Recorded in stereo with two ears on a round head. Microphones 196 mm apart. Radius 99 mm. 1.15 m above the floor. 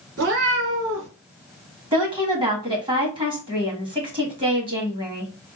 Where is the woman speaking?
20° right (ahead or behind), 1.4 m.